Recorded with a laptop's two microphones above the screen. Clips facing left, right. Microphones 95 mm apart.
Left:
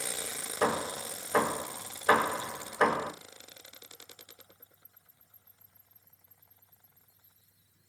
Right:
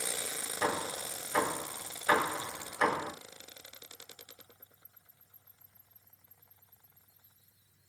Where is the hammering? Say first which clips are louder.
Left 4 dB; 50° left (ahead or behind), 1.5 m.